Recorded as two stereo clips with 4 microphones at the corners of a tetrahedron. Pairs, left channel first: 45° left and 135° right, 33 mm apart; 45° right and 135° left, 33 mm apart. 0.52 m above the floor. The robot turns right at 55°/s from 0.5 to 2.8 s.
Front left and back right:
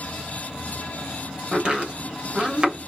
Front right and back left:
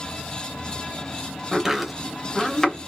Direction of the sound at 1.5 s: 175° right.